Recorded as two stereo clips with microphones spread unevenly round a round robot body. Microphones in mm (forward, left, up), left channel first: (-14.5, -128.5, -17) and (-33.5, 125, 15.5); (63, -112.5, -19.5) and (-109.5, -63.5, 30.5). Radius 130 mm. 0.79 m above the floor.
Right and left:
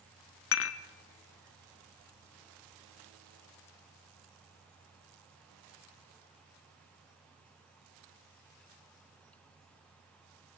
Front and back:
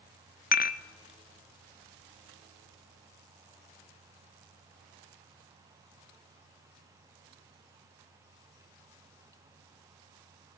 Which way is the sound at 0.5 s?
45° right.